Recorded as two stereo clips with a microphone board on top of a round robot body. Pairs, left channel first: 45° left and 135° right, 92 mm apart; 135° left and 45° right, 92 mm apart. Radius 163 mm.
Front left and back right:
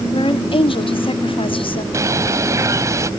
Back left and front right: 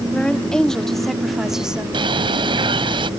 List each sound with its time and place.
0.1 s a woman speaking: 55° left; by 1.8 s 35° left
1.9 s a bird: 80° right